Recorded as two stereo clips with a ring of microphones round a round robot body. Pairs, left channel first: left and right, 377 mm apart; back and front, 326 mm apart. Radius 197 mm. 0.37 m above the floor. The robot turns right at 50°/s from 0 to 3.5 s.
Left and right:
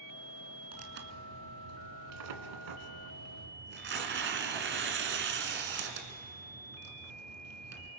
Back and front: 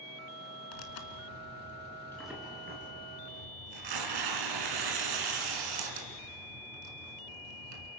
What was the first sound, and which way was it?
Tearing paper, 165° right.